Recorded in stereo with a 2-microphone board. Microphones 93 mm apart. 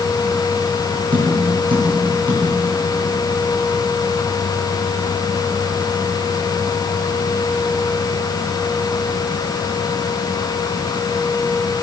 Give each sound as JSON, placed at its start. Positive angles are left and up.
{"t": 1.1, "sound": "tapping", "side_deg": -65, "distance_m": 4.5}